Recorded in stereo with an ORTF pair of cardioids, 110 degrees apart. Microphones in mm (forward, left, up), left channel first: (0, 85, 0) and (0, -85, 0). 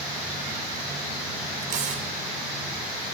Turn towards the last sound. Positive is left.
turn(degrees=-50)